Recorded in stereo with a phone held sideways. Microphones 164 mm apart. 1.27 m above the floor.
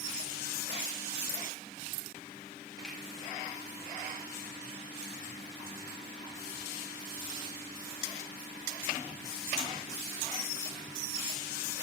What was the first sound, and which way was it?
A finger snap, 5° left (ahead or behind).